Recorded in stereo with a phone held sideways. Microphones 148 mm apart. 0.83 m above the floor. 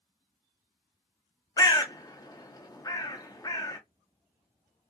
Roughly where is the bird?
Left.